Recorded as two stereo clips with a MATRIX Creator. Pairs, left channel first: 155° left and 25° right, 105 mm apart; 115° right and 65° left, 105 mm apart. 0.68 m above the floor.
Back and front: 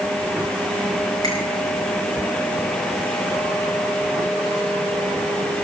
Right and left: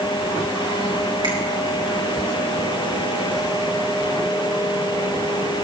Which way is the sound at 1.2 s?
110° left.